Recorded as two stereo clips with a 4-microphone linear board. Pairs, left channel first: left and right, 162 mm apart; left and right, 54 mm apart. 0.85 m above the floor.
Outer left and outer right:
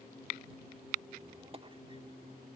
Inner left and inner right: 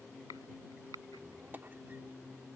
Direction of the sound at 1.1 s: 35° right (ahead or behind).